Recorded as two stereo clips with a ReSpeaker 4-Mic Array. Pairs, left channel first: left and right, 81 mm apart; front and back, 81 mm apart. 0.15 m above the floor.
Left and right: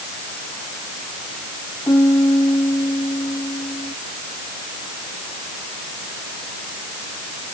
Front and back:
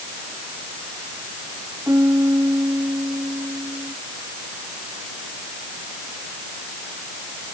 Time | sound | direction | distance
1.9 | a piano | 130° left | ?